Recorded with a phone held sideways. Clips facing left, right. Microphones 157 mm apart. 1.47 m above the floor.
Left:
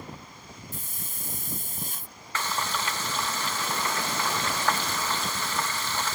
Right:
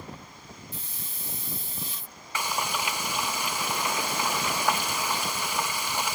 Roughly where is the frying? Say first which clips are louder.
Even; centre.